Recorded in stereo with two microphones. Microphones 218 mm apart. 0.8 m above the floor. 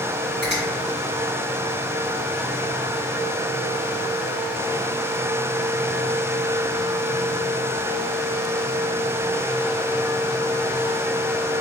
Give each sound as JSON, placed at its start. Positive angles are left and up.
{"t": 0.4, "sound": "a finger snap", "side_deg": 50, "distance_m": 1.3}